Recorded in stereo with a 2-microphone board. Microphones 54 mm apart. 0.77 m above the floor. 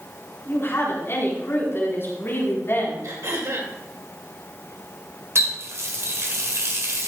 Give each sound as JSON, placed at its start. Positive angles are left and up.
{"t": 0.5, "sound": "a woman speaking", "side_deg": 45, "distance_m": 7.0}
{"t": 3.0, "sound": "throat clearing", "side_deg": -65, "distance_m": 3.5}
{"t": 5.3, "sound": "a running tap", "side_deg": -55, "distance_m": 1.8}